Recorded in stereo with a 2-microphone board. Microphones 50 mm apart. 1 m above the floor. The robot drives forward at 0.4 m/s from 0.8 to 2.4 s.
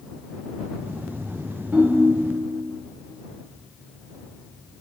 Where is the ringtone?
40° right (ahead or behind), 1.3 m; by 2.5 s 35° right (ahead or behind), 1.5 m.